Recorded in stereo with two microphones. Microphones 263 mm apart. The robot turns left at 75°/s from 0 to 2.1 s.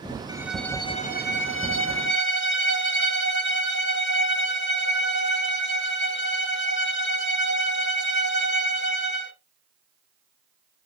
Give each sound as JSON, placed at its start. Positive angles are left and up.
{"t": 0.3, "sound": "a violin", "azimuth_deg": -160, "distance_m": 1.0}